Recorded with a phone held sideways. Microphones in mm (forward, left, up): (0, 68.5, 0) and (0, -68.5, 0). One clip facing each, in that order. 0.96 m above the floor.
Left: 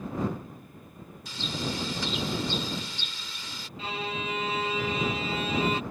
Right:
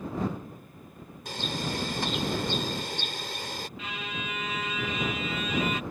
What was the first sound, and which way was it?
A bird, 55° right (ahead or behind).